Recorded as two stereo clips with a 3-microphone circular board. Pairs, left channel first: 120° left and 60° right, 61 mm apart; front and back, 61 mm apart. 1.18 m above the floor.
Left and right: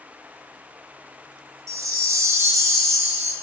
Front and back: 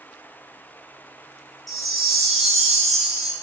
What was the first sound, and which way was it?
A chime, 90° right.